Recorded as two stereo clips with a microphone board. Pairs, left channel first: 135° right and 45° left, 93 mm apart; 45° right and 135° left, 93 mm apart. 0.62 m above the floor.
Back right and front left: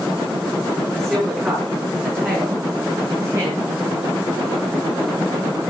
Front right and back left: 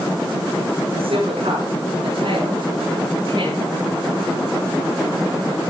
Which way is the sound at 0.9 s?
125° left.